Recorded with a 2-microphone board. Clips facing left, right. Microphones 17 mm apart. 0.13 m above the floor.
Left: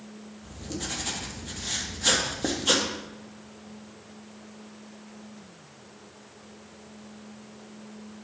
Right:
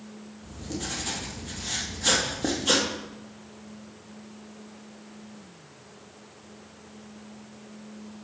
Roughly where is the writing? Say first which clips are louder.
Right 1 dB; centre.